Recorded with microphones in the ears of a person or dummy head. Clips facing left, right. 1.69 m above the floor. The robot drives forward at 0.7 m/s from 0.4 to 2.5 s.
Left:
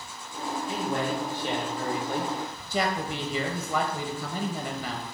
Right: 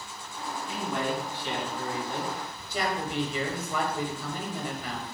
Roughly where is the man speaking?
Left.